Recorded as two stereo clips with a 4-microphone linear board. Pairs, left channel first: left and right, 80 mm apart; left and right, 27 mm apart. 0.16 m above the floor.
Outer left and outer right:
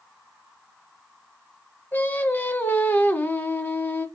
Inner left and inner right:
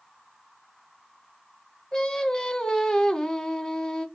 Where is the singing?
25° left (ahead or behind), 0.7 m.